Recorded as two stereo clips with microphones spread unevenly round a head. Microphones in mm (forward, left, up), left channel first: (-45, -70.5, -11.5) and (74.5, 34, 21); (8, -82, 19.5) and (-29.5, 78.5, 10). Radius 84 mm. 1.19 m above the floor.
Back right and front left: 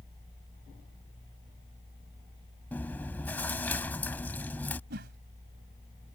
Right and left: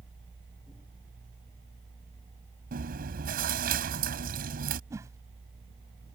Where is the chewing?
140° left.